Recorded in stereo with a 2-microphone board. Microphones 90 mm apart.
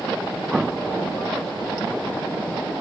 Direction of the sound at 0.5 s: 5° right (ahead or behind).